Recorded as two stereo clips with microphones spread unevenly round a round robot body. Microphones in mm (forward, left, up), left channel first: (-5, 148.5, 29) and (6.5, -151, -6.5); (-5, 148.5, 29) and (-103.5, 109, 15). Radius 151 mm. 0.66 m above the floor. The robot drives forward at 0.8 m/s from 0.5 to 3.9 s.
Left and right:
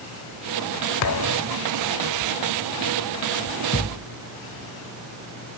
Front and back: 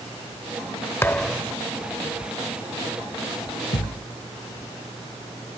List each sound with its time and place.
1.0 s a thud: 85° left; by 1.6 s 130° left
3.7 s a thud: 35° left